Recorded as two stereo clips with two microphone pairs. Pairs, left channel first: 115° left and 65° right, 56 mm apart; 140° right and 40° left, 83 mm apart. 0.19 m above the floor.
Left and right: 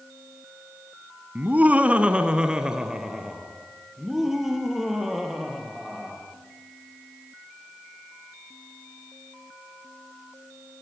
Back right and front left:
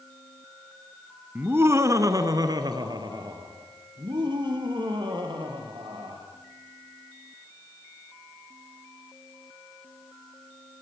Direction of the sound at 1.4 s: 20° right.